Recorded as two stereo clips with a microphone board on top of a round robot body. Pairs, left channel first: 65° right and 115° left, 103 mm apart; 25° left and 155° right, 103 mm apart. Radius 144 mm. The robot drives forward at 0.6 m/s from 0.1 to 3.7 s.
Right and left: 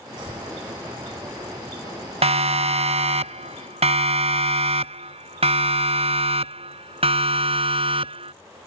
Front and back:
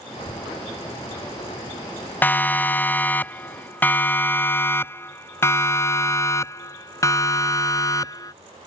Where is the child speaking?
70° left; by 3.2 s 80° left.